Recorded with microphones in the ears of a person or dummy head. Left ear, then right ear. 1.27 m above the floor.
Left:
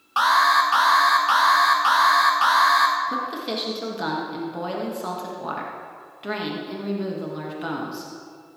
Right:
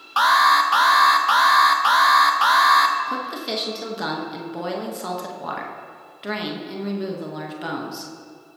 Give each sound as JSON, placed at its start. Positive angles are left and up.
{"t": 0.2, "sound": "an alarm", "side_deg": -10, "distance_m": 0.6}
{"t": 3.1, "sound": "a woman speaking", "side_deg": -10, "distance_m": 1.2}